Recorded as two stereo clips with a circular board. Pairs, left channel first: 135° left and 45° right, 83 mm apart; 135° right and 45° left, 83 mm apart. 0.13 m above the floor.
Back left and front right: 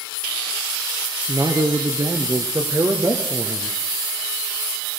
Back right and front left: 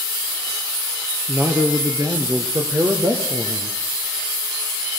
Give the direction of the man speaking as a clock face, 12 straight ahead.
1 o'clock.